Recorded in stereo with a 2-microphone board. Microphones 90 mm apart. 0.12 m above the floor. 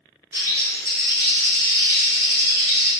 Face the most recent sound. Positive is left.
turn(degrees=-35)  # may be behind; listen again after turning